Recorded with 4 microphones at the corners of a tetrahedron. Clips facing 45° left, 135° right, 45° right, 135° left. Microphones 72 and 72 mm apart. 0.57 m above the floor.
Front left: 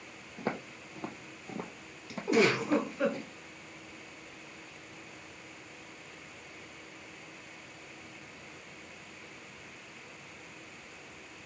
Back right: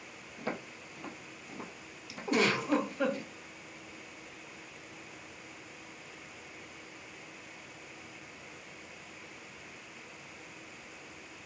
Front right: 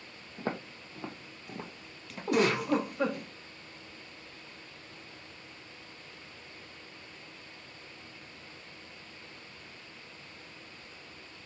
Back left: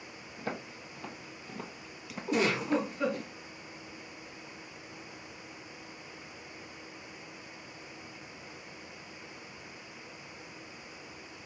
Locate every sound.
0.4 s footsteps: straight ahead, 1.2 m; by 3.3 s 95° left, 1.0 m
2.3 s a giggle: 40° right, 2 m